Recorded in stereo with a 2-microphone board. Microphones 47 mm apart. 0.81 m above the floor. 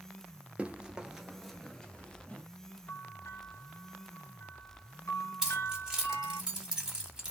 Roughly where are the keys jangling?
Centre.